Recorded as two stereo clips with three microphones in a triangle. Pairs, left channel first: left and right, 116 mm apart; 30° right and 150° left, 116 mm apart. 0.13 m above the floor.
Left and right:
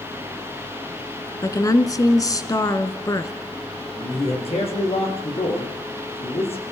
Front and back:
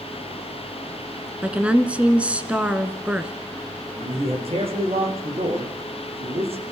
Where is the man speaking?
120° left, 7 m.